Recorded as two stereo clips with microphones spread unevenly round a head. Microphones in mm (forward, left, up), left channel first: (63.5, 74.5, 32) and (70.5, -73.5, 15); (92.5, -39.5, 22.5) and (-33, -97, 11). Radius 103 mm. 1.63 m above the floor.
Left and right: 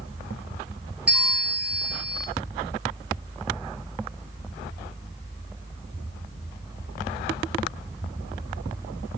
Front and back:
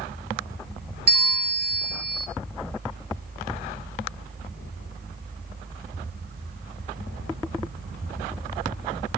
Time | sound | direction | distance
1.1 | a bell | 170° right | 0.8 m